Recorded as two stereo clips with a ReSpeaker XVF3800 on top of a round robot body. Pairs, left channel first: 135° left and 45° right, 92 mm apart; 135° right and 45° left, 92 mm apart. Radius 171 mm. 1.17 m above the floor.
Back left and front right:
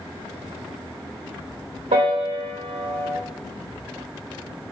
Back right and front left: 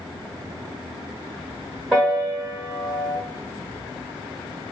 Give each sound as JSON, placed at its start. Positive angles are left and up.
{"t": 1.9, "sound": "a piano", "azimuth_deg": -35, "distance_m": 0.7}